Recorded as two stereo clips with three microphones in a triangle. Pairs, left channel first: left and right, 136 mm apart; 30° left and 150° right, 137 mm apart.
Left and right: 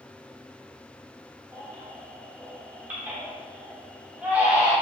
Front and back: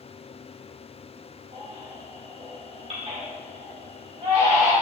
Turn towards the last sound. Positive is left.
turn(degrees=-165)